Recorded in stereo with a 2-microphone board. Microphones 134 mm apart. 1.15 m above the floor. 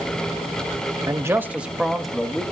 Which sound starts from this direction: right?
A man speaking, at 1.1 s.